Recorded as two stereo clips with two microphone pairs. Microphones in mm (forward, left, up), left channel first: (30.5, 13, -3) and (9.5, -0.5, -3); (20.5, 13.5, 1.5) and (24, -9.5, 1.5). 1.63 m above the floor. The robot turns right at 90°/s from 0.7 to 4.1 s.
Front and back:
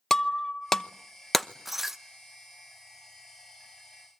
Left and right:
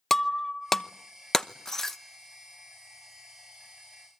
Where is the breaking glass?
40° left, 0.8 m; by 2.0 s 155° left, 0.8 m.